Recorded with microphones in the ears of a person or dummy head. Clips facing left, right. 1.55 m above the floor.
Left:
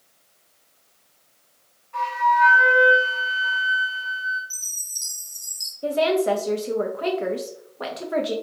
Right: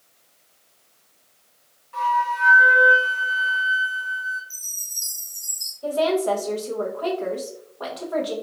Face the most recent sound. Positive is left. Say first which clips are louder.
# left 1 dB
turn(degrees=20)  # may be behind; listen again after turning